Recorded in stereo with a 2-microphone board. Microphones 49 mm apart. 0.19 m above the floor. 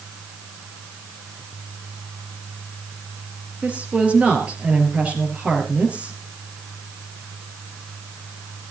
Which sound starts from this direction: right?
A woman speaking, at 3.6 s.